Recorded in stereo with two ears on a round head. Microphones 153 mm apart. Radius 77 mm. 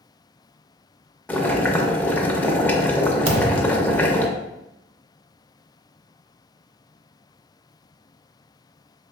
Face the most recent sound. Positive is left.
turn(degrees=-35)  # may be behind; listen again after turning